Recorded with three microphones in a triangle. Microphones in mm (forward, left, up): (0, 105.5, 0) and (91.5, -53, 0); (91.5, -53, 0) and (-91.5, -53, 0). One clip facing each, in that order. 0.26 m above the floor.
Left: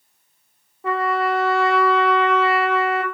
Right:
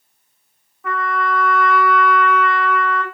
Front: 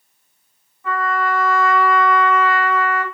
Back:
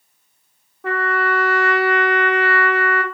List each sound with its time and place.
0.8 s a trumpet: 175° left, 0.9 m